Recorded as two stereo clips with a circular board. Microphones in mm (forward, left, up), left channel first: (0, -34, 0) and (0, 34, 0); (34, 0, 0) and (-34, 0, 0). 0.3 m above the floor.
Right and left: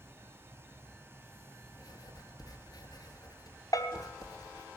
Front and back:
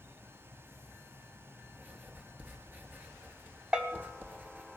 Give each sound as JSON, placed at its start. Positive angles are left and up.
{"t": 1.8, "sound": "writing", "azimuth_deg": -115, "distance_m": 2.0}
{"t": 3.7, "sound": "a bell", "azimuth_deg": -105, "distance_m": 1.2}